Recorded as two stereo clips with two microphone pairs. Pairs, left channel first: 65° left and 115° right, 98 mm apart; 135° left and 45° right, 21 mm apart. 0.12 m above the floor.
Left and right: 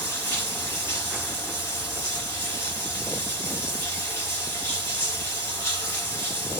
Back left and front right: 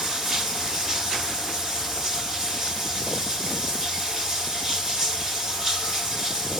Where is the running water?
10° left, 1.6 m.